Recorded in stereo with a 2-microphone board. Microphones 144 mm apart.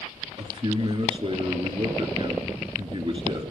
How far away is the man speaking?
About 2.5 m.